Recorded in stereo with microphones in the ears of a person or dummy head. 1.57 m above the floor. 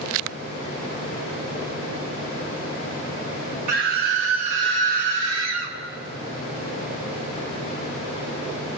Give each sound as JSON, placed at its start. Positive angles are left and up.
{"t": 3.7, "sound": "a scream", "side_deg": -50, "distance_m": 1.6}